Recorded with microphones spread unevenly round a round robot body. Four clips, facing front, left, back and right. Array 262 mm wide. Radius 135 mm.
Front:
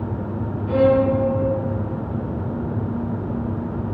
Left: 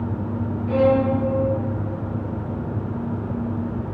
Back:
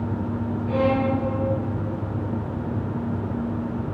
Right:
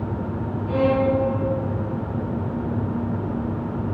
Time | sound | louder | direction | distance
0.7 | a violin | left 2 dB, front 6 dB | 25° right | 5 m